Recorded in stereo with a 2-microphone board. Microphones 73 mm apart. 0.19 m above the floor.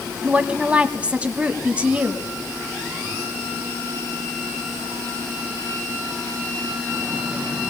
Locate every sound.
0.2 s a woman speaking: 20° right (ahead or behind), 1.2 m